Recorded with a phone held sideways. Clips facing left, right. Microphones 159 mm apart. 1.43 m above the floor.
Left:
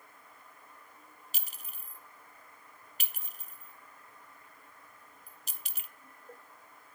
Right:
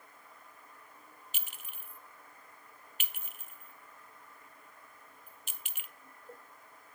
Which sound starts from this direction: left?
A clink, at 1.3 s.